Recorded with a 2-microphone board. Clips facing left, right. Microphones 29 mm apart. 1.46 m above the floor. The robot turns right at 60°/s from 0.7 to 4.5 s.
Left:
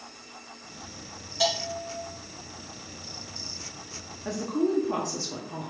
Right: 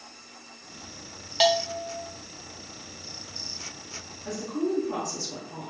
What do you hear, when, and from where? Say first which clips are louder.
1.4 s a bell: right 5 dB; 55° right, 0.9 m; by 2.0 s 20° right, 0.9 m
4.2 s a woman speaking: left 2 dB; 30° left (ahead or behind), 0.8 m; by 5.7 s 15° left (ahead or behind), 0.8 m